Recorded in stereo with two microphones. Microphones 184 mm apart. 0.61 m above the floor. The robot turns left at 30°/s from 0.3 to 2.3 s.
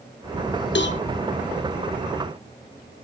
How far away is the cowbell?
About 0.6 m.